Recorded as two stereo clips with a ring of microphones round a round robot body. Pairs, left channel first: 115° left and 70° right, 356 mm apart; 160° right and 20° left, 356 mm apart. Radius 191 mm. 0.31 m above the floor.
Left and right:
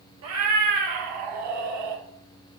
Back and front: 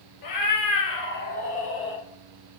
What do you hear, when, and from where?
0.2 s a cat meowing: 120° right, 2.5 m; by 2.0 s 80° right, 3 m